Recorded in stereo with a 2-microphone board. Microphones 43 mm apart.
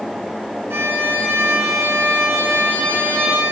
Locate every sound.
0.7 s a violin: 75° right (ahead or behind), 3.5 m